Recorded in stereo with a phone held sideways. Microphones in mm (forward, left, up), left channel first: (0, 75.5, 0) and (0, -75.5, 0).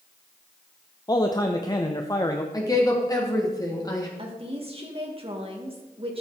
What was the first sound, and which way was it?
A man speaking, 25° left (ahead or behind).